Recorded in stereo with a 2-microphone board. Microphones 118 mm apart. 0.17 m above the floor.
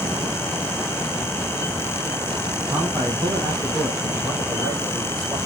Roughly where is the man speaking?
Right.